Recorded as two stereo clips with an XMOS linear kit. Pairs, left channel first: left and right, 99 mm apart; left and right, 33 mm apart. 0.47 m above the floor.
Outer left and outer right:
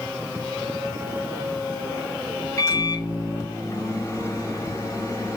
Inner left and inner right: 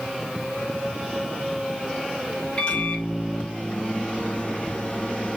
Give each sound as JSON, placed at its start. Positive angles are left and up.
{"t": 2.6, "sound": "a microwave", "side_deg": 30, "distance_m": 1.1}